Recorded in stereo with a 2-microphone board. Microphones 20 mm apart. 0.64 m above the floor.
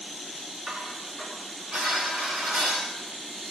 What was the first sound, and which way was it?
Dishes clattering, 45° right (ahead or behind).